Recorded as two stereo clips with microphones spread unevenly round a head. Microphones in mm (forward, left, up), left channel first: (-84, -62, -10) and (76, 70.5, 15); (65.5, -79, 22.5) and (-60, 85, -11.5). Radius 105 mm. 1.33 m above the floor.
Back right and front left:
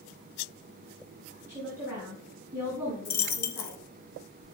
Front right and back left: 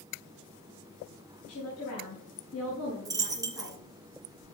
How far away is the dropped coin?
About 0.8 m.